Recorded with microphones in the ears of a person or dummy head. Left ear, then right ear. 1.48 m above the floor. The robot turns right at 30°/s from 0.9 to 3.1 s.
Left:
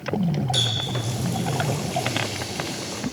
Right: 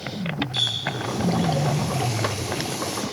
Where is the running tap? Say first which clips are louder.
Even; 130° left, 4 m; by 3.0 s 165° right, 4 m.